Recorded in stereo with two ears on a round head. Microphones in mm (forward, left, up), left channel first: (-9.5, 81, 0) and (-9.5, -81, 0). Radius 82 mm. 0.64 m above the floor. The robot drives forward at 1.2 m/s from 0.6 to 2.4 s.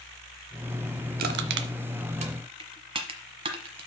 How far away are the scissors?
I don't hear scissors.